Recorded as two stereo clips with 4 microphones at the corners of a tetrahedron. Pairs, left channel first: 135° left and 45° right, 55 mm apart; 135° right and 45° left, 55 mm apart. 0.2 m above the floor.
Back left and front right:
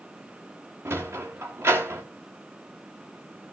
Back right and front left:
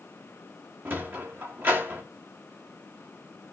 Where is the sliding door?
5° right, 2.5 m.